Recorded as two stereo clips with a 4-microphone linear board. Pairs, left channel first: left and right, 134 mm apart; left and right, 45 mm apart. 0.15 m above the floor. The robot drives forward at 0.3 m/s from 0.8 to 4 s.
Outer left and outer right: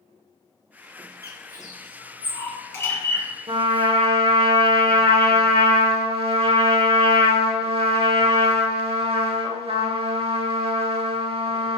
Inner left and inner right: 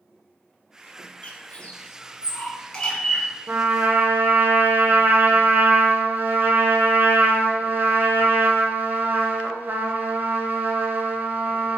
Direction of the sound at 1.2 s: 30° left (ahead or behind).